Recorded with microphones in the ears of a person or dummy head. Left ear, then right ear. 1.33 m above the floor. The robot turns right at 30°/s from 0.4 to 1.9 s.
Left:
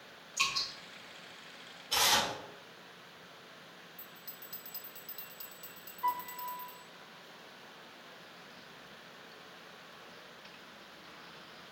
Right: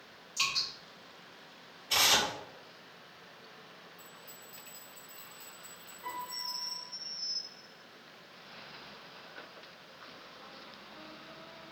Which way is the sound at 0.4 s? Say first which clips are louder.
Right 1 dB; 5° right (ahead or behind).